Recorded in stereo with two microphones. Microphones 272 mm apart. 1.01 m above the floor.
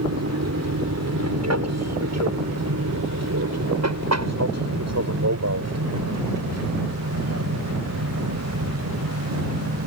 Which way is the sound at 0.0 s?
65° right (ahead or behind).